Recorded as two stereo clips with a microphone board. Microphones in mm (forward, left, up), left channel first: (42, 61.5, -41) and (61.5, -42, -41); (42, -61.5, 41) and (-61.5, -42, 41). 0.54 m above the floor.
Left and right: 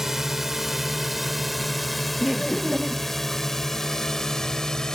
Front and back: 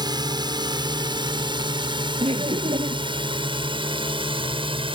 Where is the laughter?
165° right.